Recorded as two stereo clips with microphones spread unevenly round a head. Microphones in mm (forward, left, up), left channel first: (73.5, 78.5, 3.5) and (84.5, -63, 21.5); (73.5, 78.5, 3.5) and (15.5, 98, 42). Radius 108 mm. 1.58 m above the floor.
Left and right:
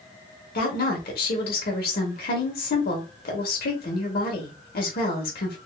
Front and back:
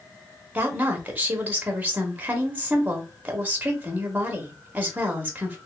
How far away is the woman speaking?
About 1.4 m.